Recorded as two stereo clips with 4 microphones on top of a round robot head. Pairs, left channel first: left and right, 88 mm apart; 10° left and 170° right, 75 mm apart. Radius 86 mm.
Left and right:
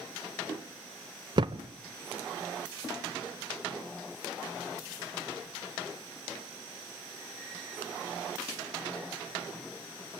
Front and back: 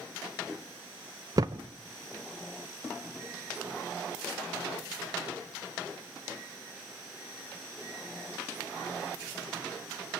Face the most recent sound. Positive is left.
turn(degrees=-125)